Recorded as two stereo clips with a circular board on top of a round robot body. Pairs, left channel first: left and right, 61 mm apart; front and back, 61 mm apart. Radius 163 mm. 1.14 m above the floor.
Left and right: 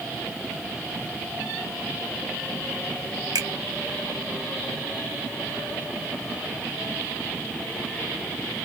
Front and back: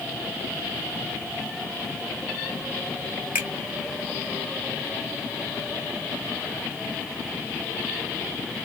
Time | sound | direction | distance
3.4 | a finger snap | 115° right | 1.4 m